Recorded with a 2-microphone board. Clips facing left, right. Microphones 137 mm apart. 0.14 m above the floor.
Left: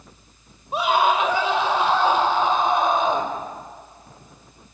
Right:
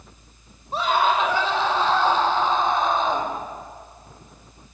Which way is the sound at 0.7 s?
10° left (ahead or behind).